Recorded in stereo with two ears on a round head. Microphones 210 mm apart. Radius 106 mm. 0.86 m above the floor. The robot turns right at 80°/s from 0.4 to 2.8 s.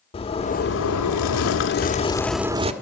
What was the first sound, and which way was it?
A zipper, 25° left.